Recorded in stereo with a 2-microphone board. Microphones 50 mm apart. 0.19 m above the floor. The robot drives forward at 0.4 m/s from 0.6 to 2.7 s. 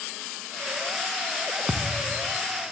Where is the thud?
15° right (ahead or behind), 2 m.